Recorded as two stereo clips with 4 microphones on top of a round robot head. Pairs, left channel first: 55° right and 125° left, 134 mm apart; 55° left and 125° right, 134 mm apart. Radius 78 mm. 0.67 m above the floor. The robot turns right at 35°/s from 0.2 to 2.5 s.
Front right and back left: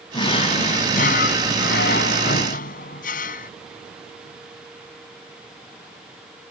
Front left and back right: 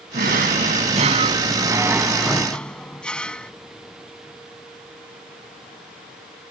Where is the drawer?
110° right; by 3.5 s 30° right.